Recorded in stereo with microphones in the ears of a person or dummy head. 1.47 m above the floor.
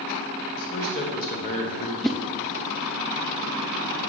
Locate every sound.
0.6 s a man speaking: 50° left (ahead or behind), 1.3 m
2.0 s a whoosh: centre (ahead or behind), 0.5 m